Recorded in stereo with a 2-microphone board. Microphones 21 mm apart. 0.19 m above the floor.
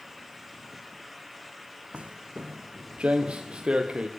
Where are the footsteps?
70° right (ahead or behind), 0.6 m; by 4.1 s 55° right (ahead or behind), 1.9 m.